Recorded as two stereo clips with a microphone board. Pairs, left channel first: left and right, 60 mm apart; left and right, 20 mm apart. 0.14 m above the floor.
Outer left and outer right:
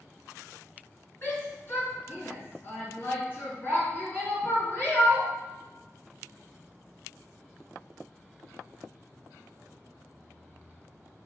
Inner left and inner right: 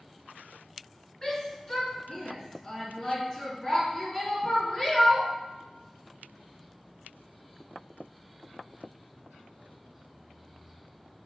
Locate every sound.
1.2 s a shout: 40° left (ahead or behind), 1.7 m